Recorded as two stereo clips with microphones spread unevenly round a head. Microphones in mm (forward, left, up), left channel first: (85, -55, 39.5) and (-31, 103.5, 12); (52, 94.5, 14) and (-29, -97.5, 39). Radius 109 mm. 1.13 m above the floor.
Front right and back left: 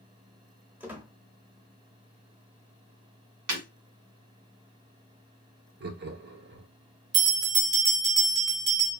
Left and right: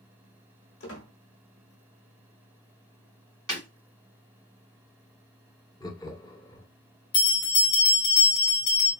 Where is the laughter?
135° left, 0.8 m.